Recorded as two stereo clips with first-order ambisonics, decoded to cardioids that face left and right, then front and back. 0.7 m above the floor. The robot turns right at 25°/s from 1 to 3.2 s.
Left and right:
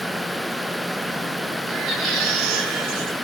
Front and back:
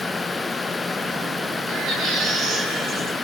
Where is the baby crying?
150° right, 10 m; by 3.1 s 115° right, 10 m.